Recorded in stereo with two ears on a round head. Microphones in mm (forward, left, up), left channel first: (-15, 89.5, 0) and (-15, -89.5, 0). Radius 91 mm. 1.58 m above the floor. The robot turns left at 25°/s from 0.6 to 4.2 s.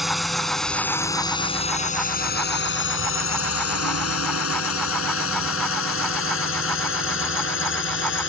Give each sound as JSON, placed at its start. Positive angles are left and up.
{"t": 0.0, "sound": "a drone", "side_deg": 0}